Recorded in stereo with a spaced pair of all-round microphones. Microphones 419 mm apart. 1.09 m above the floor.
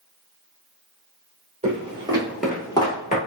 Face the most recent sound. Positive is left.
turn(degrees=20)  # may be behind; listen again after turning